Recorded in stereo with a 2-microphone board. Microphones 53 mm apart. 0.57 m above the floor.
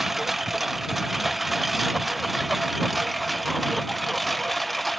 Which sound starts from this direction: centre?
A lawn mower, at 0.0 s.